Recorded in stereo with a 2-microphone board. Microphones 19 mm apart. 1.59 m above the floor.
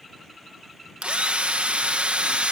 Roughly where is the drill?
Right.